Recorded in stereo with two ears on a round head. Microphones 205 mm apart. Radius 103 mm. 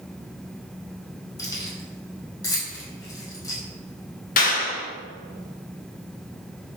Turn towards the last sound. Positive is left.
turn(degrees=40)  # may be behind; listen again after turning